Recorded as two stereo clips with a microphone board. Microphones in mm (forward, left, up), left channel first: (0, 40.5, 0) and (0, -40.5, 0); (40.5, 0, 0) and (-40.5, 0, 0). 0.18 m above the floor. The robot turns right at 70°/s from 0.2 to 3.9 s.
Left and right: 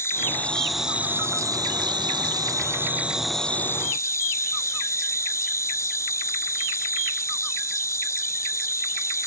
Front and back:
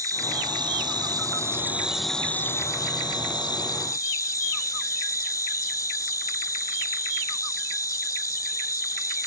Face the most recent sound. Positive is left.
turn(degrees=40)